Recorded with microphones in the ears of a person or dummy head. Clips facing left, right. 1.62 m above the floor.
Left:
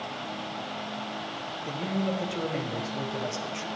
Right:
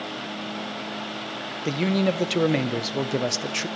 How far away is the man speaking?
About 0.6 m.